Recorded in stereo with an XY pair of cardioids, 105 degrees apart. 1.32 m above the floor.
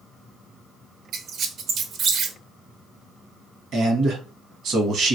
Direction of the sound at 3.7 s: 70° right.